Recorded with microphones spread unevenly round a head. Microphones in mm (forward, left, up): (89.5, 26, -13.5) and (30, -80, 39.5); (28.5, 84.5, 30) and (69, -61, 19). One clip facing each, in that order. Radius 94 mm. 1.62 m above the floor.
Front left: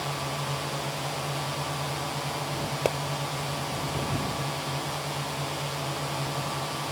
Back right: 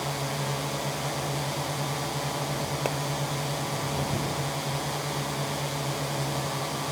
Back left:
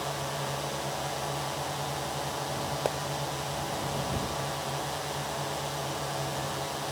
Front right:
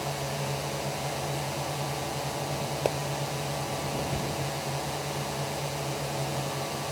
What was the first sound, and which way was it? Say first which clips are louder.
A drone: back right 1 dB, front right 1 dB; 130° right.